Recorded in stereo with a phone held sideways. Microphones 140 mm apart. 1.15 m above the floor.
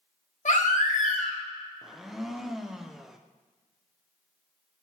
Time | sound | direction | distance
0.5 | a baby crying | 60° left (ahead or behind) | 1.6 m
1.8 | a blender | centre (ahead or behind) | 0.7 m